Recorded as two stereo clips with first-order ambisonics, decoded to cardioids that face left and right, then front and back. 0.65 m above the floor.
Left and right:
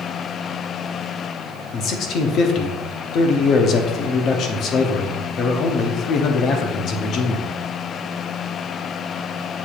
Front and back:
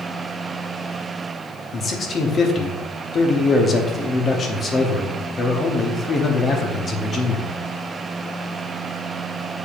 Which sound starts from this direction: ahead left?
A man speaking, at 1.7 s.